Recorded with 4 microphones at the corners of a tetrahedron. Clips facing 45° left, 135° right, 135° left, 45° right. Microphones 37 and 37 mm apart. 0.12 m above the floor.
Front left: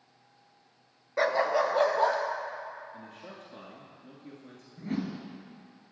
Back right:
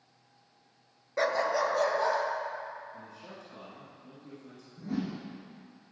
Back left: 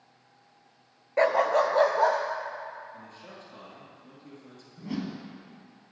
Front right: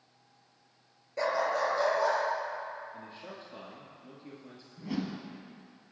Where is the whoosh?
45° left, 2 m.